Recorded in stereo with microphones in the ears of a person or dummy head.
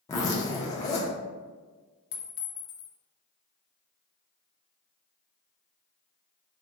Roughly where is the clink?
Left.